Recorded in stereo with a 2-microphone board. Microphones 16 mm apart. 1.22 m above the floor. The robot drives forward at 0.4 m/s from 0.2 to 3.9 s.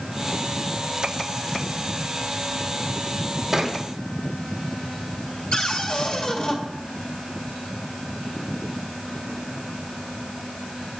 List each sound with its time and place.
3.5 s a thud: 15° right (ahead or behind), 1.7 m
5.5 s a cupboard door: 65° left (ahead or behind), 1.7 m